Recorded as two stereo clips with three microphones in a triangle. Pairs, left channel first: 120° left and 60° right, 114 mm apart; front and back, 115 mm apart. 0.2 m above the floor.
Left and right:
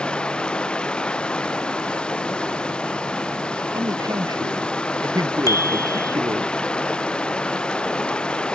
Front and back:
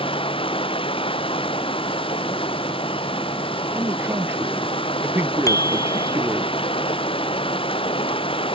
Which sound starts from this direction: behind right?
A man speaking, at 3.7 s.